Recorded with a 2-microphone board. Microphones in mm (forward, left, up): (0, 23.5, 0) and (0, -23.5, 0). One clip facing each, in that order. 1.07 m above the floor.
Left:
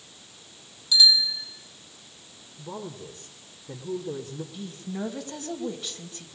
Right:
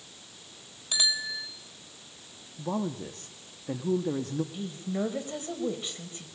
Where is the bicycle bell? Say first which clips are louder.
Left 8 dB; 45° right (ahead or behind), 3 m.